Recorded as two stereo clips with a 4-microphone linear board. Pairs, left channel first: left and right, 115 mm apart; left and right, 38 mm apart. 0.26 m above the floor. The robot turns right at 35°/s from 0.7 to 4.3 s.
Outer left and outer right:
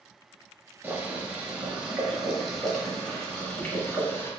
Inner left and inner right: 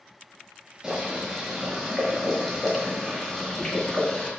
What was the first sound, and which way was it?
Boiling, 20° right (ahead or behind).